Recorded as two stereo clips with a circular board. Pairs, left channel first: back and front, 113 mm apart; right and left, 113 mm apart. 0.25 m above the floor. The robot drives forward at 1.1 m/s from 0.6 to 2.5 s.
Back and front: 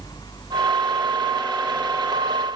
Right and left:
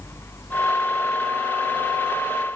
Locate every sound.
Only background noise.